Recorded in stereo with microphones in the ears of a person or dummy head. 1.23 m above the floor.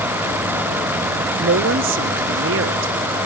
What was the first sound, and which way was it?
A woman speaking, 65° right (ahead or behind).